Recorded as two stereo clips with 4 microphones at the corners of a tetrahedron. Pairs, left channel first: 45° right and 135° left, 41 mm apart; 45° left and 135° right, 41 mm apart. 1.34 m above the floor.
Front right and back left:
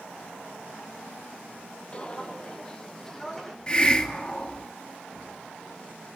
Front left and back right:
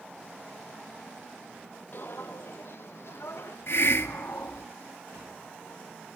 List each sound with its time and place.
1.9 s footsteps: 10° left, 3 m; by 3.6 s 30° left, 4.5 m
3.7 s a hiss: 20° left, 2.0 m